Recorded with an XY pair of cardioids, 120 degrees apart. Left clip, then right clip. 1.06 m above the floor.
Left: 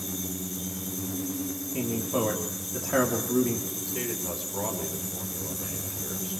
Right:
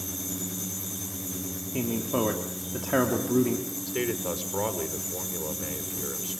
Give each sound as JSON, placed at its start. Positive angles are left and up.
{"t": 1.7, "sound": "a man speaking", "azimuth_deg": -25, "distance_m": 3.0}
{"t": 3.9, "sound": "a man speaking", "azimuth_deg": -40, "distance_m": 4.0}